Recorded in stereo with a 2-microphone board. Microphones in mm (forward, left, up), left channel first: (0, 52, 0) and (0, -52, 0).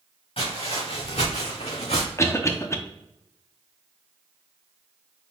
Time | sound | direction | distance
0.4 | footsteps | 60° left (ahead or behind) | 2.5 m
2.2 | a cough | 25° left (ahead or behind) | 0.7 m